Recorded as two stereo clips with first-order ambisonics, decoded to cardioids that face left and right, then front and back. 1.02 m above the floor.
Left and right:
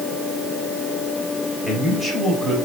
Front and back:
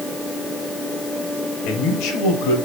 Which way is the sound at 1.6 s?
5° right.